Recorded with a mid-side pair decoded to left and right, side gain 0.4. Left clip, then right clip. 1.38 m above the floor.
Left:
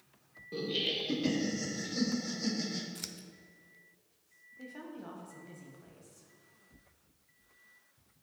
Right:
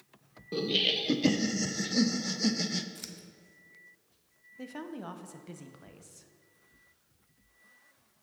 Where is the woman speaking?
60° right, 0.7 m.